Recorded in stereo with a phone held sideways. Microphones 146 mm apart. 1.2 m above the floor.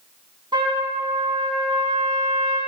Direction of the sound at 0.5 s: 30° right (ahead or behind).